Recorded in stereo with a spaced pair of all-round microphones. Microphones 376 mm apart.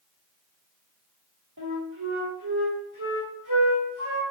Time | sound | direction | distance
1.6 | a flute | 60° right (ahead or behind) | 0.9 m